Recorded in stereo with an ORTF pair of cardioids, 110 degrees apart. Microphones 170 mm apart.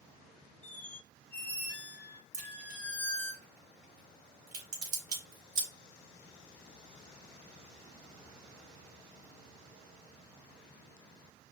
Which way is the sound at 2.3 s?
65° right.